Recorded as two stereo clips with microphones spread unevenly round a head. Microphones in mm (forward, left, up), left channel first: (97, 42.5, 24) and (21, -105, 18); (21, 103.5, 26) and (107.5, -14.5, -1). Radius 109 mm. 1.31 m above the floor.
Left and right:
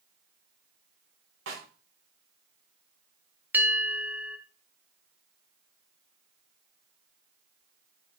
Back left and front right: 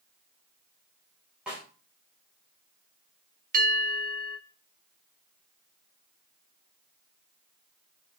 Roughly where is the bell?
Ahead right.